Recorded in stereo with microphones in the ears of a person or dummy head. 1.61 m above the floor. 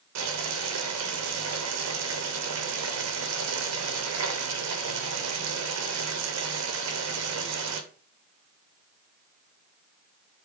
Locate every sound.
0.1 s boiling: 85° right, 0.6 m